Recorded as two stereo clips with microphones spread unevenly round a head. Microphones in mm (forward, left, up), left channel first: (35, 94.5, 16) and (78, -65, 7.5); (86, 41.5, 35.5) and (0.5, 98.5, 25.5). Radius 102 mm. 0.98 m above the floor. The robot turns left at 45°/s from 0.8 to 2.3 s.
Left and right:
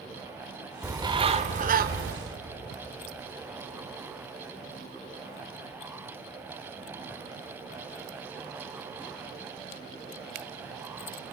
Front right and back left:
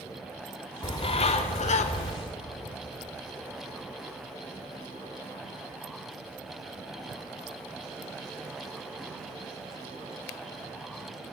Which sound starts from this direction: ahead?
A bird, at 0.8 s.